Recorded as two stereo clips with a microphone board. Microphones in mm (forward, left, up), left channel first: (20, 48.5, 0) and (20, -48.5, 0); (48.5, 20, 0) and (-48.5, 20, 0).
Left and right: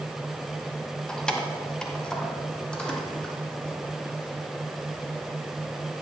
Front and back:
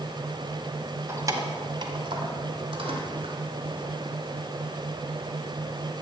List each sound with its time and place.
1.1 s keys jangling: 160° left, 0.9 m; by 6.0 s 170° left, 4 m